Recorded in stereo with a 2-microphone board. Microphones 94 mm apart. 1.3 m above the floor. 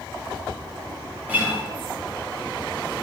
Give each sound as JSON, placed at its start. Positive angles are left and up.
{"t": 1.3, "sound": "a guitar", "side_deg": -20, "distance_m": 1.1}